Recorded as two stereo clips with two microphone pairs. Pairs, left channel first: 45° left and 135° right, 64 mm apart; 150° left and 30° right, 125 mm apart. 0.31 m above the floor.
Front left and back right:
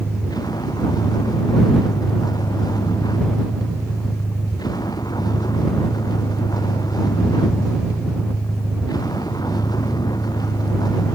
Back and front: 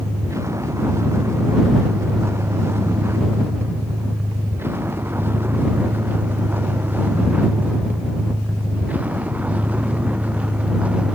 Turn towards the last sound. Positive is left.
turn(degrees=55)